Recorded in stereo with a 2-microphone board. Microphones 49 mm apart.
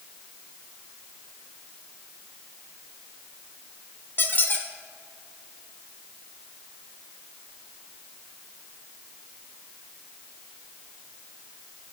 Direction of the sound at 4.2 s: 45° left (ahead or behind).